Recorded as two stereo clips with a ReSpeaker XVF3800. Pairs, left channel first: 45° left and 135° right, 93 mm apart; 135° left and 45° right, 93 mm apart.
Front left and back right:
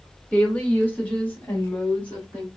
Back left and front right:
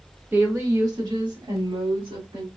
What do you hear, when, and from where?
0.3 s a woman speaking: 15° right, 1.3 m; by 2.5 s 30° right, 3 m